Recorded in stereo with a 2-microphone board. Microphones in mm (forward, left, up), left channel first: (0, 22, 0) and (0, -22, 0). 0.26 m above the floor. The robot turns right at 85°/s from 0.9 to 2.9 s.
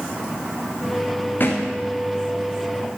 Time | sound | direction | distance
1.4 | a thud | 50° left (ahead or behind) | 4 m